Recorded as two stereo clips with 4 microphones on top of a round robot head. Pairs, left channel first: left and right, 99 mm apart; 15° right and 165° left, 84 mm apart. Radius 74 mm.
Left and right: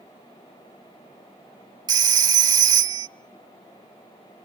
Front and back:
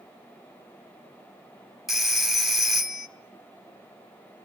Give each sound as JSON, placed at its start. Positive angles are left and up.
{"t": 1.9, "sound": "a phone ringing", "azimuth_deg": -105, "distance_m": 1.0}